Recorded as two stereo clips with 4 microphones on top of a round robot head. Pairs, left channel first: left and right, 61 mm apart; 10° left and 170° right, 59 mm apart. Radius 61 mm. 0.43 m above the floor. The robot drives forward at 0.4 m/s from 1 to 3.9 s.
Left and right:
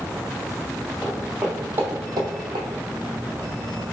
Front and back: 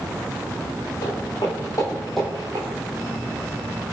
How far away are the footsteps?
About 1.9 m.